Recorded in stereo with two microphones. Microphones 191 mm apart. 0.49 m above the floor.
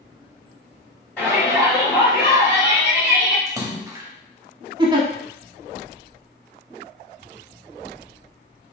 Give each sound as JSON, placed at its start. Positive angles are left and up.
{"t": 1.2, "sound": "a shout", "side_deg": 5, "distance_m": 1.9}
{"t": 3.5, "sound": "a splash", "side_deg": -15, "distance_m": 0.6}
{"t": 4.8, "sound": "a giggle", "side_deg": -25, "distance_m": 0.8}